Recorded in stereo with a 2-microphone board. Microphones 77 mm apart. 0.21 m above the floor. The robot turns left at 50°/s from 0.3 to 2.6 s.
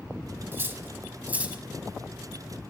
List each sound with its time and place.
0.5 s cutlery clinking: 30° right (ahead or behind), 0.9 m; by 1.6 s 15° right (ahead or behind), 0.9 m